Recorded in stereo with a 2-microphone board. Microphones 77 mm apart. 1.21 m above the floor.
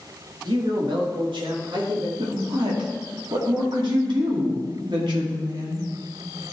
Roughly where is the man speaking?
Right.